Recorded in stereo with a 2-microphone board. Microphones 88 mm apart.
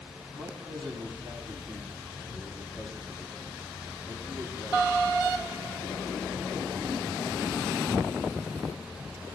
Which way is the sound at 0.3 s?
65° right (ahead or behind).